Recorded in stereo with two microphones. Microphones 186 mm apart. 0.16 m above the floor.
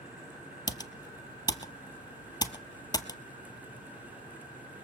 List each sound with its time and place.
0.7 s typing on a keyboard: 20° left (ahead or behind), 0.9 m